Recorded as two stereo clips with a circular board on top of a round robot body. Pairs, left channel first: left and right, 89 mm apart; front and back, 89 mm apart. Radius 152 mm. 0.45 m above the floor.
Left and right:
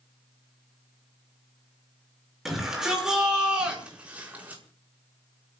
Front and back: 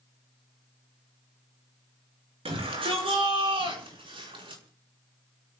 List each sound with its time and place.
2.5 s a shout: 175° right, 8 m; by 4.6 s 160° right, 6.5 m